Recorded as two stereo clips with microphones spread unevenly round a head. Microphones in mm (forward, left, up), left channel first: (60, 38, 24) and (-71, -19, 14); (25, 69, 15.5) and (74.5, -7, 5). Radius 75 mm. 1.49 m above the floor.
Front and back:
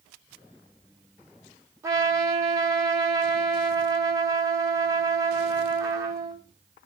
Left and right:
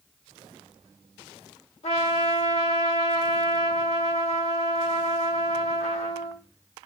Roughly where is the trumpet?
Behind left.